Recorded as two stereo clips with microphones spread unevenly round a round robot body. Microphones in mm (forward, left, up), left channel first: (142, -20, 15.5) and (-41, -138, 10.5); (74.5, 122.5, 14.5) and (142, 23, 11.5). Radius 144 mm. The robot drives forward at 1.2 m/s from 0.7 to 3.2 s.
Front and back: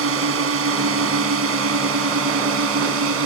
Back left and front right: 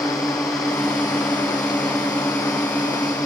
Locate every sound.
0.0 s a drone: 150° right